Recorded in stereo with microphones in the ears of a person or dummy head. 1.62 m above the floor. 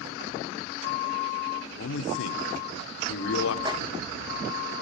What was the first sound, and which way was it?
A man speaking, 75° left (ahead or behind).